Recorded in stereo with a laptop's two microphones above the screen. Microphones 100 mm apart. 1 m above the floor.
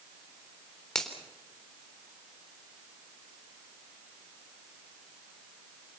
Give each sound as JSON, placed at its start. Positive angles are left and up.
{"t": 0.9, "sound": "a finger snap", "side_deg": 5, "distance_m": 3.5}